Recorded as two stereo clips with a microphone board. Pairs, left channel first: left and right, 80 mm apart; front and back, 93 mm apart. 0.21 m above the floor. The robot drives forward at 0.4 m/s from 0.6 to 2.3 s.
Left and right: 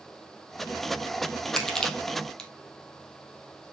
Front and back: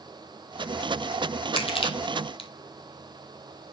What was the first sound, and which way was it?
Crushing, 5° left.